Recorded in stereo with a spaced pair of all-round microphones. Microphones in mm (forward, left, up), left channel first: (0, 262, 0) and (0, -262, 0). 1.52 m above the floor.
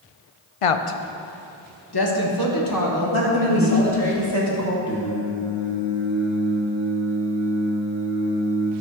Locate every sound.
0.6 s a woman speaking: 80° left, 0.6 m; by 4.1 s 30° left (ahead or behind), 2 m
3.1 s a woman speaking: 65° right (ahead or behind), 2.0 m
4.9 s singing: 10° left (ahead or behind), 1.2 m